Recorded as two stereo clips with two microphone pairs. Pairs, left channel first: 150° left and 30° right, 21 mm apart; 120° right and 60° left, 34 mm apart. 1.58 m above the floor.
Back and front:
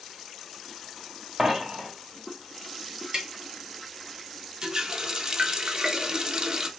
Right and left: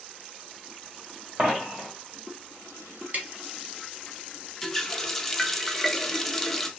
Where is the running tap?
35° right, 0.6 m.